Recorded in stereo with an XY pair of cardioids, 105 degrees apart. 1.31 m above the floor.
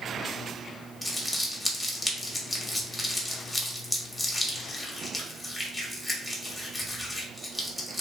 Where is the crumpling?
10° left, 0.8 m.